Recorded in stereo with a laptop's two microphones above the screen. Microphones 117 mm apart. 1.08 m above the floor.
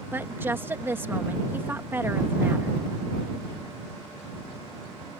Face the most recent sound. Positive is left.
turn(degrees=-20)  # may be behind; listen again after turning